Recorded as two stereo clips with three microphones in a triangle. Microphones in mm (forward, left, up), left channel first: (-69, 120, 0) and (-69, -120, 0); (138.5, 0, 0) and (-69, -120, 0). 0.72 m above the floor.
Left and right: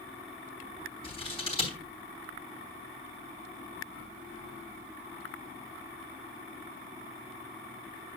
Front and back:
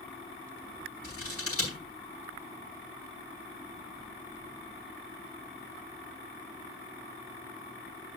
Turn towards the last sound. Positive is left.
turn(degrees=25)